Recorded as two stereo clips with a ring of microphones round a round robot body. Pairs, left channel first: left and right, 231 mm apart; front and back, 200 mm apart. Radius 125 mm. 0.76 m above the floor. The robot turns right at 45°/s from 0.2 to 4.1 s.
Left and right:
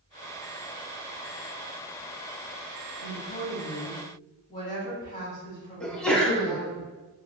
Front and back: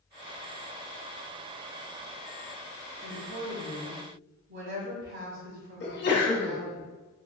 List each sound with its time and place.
3.0 s a woman speaking: 110° left, 1.7 m; by 6.8 s 160° left, 1.7 m
5.8 s a sneeze: 5° left, 1.2 m